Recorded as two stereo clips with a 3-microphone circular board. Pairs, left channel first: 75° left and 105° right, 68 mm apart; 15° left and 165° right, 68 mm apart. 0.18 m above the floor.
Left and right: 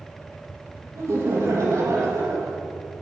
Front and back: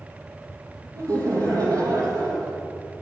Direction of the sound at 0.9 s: 140° right.